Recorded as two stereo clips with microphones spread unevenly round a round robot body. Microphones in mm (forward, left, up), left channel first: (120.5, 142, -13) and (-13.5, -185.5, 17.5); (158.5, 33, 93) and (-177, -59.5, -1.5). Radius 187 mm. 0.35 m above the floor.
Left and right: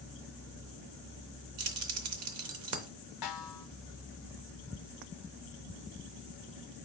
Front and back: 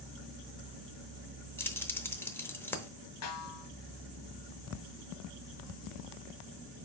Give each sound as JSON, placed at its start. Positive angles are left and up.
{"t": 1.6, "sound": "keys jangling", "azimuth_deg": -85, "distance_m": 0.7}
{"t": 3.2, "sound": "a snare drum", "azimuth_deg": 70, "distance_m": 1.0}